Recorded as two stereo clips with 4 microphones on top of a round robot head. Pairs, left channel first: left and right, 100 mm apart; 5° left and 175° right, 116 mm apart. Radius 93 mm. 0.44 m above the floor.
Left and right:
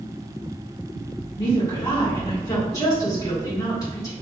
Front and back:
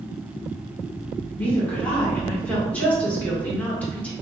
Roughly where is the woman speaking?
Left.